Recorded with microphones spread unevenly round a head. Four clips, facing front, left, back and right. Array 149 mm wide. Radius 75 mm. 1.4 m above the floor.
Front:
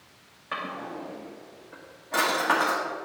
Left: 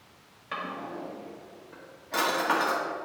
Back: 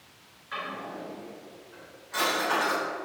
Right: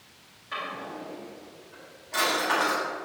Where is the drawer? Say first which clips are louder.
Even, front 2 dB; 20° left, 1.4 m.